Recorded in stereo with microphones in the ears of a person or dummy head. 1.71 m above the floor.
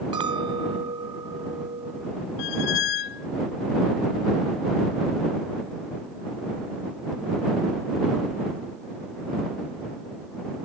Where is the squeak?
55° left (ahead or behind).